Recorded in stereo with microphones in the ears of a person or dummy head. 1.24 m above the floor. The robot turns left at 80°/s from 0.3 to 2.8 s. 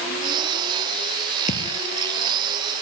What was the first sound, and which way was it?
A thud, 45° left (ahead or behind).